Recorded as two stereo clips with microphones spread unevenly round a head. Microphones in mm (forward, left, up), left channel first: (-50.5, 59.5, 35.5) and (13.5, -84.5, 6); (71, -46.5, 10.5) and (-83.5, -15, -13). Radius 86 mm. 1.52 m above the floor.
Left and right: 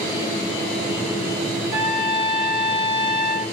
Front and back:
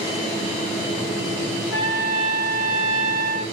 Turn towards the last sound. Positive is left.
turn(degrees=-110)